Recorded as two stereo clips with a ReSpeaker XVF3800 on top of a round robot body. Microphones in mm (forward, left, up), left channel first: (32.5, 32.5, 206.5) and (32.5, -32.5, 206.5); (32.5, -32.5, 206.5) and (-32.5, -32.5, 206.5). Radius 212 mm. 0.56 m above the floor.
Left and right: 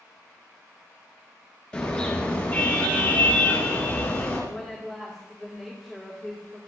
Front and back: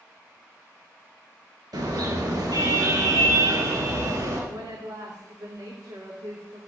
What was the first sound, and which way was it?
A car horn, 170° left.